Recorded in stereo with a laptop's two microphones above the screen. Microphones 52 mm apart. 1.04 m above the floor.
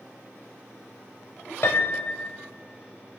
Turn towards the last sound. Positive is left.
turn(degrees=55)  # may be behind; listen again after turning